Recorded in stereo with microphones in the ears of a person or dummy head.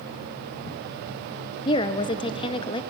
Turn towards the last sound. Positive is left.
turn(degrees=25)  # may be behind; listen again after turning